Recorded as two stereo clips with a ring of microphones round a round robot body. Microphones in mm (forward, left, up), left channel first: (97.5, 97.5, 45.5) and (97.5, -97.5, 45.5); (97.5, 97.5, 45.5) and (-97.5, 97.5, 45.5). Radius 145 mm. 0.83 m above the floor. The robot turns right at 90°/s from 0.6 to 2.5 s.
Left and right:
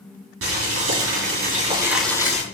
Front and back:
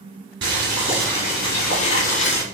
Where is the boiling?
125° right, 4 m; by 2.4 s 40° left, 4 m.